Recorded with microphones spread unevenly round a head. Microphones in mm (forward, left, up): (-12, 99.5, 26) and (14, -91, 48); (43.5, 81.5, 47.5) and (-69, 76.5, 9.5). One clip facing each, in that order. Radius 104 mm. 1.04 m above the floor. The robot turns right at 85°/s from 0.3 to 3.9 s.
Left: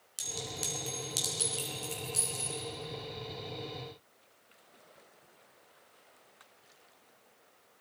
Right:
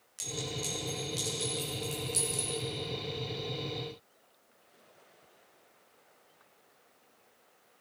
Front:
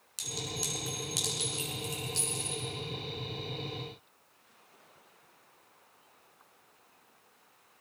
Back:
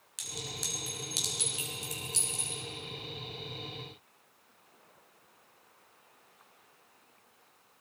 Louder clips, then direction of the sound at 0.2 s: Right 4 dB, front 4 dB; 50° left.